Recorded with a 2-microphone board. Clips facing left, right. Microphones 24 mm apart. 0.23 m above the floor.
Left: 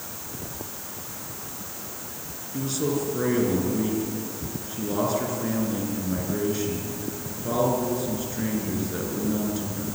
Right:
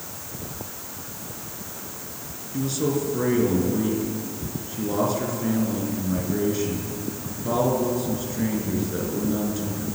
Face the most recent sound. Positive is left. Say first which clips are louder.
# right 2 dB
turn(degrees=0)  # may be behind; listen again after turning